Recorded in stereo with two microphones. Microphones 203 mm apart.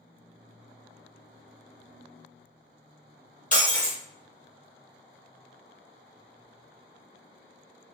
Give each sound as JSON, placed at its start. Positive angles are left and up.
{"t": 3.5, "sound": "breaking glass", "side_deg": 40, "distance_m": 1.6}